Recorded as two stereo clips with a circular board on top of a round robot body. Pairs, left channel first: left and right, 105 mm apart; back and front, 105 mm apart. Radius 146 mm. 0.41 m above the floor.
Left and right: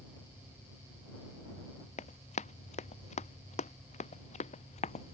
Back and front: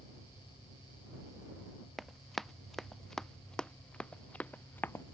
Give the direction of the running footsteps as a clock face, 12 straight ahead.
9 o'clock.